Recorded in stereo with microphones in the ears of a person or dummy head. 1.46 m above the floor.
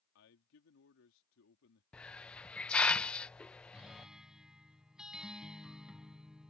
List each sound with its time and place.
0.1 s a man speaking: 75° left (ahead or behind)
1.9 s a hiss: 5° left (ahead or behind)
3.7 s a guitar: centre (ahead or behind)